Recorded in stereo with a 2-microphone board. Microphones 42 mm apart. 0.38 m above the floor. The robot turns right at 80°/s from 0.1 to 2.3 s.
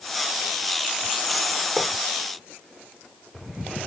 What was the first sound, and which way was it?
Writing, 10° right (ahead or behind).